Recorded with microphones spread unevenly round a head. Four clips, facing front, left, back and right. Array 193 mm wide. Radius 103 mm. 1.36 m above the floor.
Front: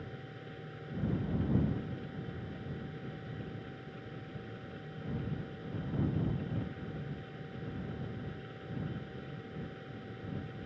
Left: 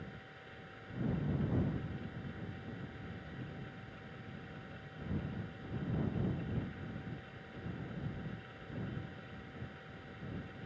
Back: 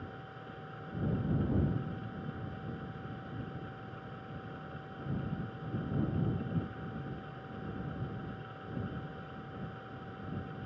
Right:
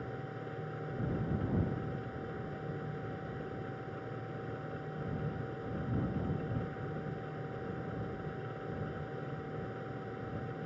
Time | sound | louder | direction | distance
0.0 | a machine running | right 9 dB, even | 85° right | ?